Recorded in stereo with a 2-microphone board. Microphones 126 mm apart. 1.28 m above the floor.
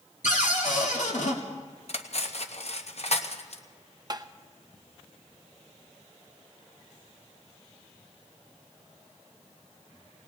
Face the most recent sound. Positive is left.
turn(degrees=-30)  # may be behind; listen again after turning